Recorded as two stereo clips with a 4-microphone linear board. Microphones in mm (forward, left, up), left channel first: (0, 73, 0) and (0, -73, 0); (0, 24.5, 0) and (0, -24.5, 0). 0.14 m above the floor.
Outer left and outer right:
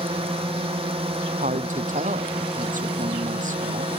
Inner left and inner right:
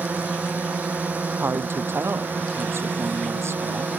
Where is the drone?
40° right (ahead or behind).